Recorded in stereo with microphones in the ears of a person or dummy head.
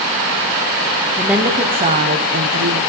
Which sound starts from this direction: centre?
A woman speaking, at 1.2 s.